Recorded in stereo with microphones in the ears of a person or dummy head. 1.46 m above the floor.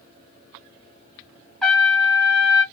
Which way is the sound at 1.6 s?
Centre (ahead or behind).